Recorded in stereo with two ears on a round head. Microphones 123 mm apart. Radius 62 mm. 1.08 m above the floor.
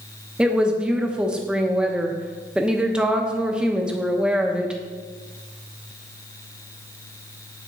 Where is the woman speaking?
5° right (ahead or behind), 0.8 m.